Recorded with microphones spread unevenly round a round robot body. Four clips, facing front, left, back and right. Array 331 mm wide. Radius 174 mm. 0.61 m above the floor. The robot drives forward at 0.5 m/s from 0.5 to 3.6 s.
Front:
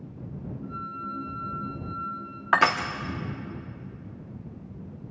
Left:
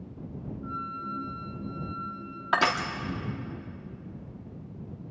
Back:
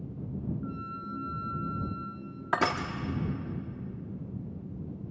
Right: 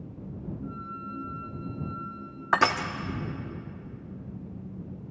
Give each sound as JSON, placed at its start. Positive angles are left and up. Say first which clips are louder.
{"t": 0.6, "sound": "a flute", "louder": "left 2 dB, front 3 dB", "azimuth_deg": 135, "distance_m": 0.7}
{"t": 2.5, "sound": "crushing", "louder": "right 2 dB, front 6 dB", "azimuth_deg": -170, "distance_m": 0.9}